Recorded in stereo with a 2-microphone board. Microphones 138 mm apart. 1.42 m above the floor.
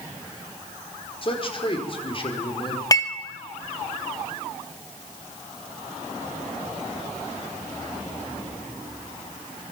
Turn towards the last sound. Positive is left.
turn(degrees=25)  # may be behind; listen again after turning